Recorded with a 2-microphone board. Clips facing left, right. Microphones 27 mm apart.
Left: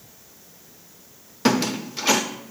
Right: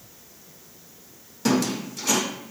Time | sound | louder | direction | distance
1.4 | a squeak | left 2 dB | 45° left (ahead or behind) | 0.8 m